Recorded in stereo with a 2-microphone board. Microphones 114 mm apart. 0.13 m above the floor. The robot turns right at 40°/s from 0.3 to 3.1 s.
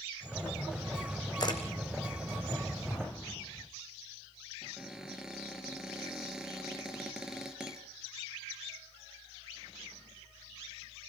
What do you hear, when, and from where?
1.4 s a camera shutter: 35° left (ahead or behind), 3 m; by 1.6 s 45° left (ahead or behind), 3 m
2.9 s an explosion: 20° left (ahead or behind), 3 m; by 3.7 s 15° left (ahead or behind), 3 m
4.6 s a cupboard door: 5° right (ahead or behind), 3 m